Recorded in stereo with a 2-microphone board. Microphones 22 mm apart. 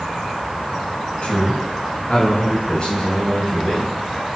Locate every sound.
1.2 s a man speaking: 50° left (ahead or behind), 2.5 m; by 4.0 s 15° left (ahead or behind), 3 m